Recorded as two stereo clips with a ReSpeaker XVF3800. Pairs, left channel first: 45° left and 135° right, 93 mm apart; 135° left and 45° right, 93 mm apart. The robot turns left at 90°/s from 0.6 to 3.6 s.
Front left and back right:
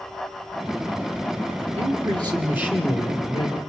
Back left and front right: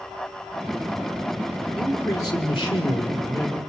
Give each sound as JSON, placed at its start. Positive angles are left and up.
{"t": 1.8, "sound": "a man speaking", "azimuth_deg": -135, "distance_m": 5.0}